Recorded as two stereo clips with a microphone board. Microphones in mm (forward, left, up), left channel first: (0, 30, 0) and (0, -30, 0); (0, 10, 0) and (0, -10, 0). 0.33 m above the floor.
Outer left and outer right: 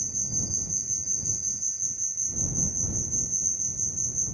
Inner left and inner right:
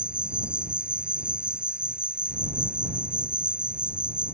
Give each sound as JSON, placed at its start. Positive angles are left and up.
{"t": 0.0, "sound": "an insect", "side_deg": -85}